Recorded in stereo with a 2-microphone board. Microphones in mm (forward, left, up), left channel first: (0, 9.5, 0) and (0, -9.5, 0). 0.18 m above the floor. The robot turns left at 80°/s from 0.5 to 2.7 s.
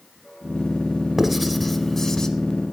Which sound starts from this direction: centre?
Writing, at 1.2 s.